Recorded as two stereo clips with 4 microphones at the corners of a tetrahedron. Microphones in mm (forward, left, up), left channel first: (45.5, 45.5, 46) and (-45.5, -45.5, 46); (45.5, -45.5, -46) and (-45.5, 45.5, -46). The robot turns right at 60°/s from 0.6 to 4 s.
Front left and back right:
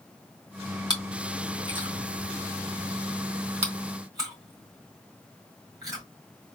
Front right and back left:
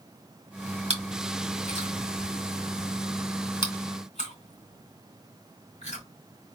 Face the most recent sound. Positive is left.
turn(degrees=-75)